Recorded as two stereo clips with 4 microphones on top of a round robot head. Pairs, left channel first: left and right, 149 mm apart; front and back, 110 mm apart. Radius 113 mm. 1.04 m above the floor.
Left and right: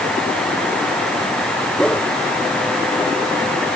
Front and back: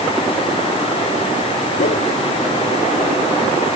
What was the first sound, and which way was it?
A whoosh, 5° left.